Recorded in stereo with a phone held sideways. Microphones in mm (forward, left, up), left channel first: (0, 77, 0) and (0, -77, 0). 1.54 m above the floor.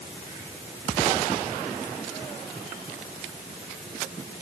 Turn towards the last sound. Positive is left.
No sound to turn to.